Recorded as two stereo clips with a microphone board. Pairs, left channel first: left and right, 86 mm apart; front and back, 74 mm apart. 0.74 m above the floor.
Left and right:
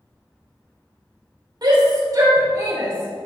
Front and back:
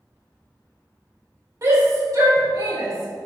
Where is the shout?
130° right, 2.5 m; by 3.3 s 155° right, 3 m.